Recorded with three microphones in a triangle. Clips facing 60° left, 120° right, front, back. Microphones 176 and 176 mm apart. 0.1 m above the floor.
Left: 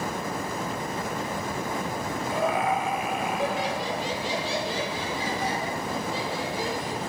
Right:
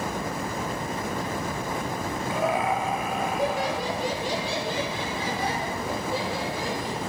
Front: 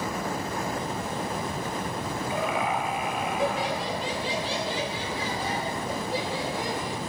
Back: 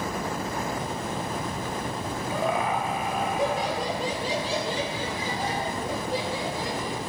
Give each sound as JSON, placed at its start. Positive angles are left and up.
{"t": 2.3, "sound": "laughter", "azimuth_deg": -175, "distance_m": 1.3}